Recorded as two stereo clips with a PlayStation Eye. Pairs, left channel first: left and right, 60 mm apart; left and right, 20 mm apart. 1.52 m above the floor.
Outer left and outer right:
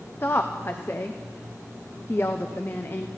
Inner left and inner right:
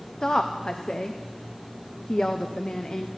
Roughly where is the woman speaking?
Left.